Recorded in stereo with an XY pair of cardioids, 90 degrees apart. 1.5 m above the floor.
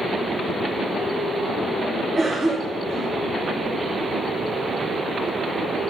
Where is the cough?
45° right, 3 m.